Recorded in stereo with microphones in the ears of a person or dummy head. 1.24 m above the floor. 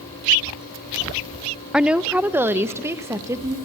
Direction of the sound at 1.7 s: Centre (ahead or behind).